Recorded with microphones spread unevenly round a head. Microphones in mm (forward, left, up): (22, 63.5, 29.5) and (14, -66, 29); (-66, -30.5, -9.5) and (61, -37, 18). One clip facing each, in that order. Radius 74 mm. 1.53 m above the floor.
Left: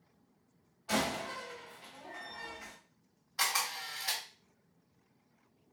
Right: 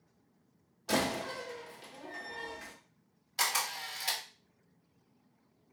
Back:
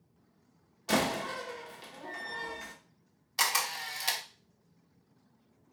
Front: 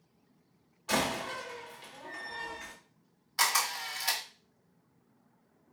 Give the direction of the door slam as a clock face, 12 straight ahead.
4 o'clock.